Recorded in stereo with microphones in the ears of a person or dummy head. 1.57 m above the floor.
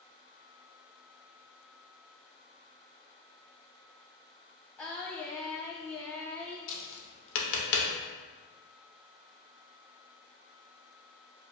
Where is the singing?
5° left (ahead or behind), 0.7 m.